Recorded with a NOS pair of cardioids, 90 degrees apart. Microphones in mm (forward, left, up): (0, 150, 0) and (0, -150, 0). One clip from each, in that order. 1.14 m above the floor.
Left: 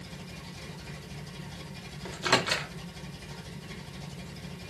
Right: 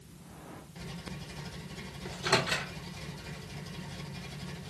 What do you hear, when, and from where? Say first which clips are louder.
2.0 s a microwave: left 3 dB; 35° left, 0.9 m